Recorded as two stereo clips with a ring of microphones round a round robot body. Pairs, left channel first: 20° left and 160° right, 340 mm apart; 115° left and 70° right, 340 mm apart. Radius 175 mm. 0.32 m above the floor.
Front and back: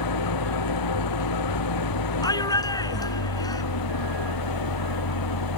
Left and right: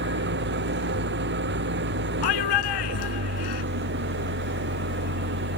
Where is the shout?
100° left.